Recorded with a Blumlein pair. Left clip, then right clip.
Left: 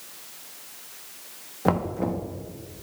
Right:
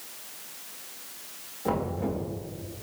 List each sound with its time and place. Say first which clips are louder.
1.6 s knocking: left 4 dB; 60° left, 0.8 m